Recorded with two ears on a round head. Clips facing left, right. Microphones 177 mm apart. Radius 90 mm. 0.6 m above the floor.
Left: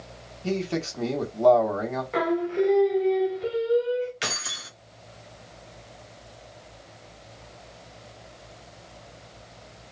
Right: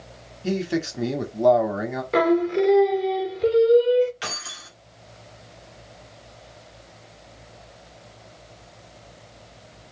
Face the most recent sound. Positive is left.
turn(degrees=30)  # may be behind; listen again after turning